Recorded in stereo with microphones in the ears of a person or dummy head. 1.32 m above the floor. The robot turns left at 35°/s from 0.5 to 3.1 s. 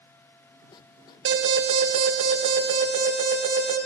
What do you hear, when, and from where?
1.2 s an alarm: 60° right, 2.5 m; by 3.8 s 125° right, 2.5 m